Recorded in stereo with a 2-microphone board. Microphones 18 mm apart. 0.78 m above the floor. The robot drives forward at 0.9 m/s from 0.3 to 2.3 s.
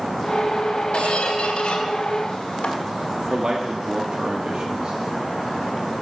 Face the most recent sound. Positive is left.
turn(degrees=-55)  # may be behind; listen again after turning